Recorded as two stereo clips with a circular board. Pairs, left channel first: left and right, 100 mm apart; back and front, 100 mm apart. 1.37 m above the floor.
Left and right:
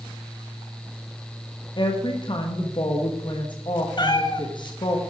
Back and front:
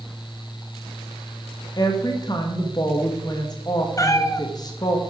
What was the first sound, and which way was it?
A woman speaking, 130° left.